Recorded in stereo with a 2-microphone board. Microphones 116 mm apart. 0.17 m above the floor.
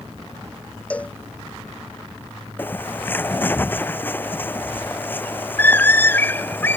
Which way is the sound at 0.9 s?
10° left (ahead or behind).